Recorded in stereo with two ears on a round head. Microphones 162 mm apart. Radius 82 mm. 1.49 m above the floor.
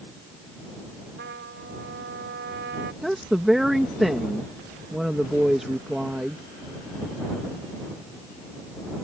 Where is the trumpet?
65° right (ahead or behind).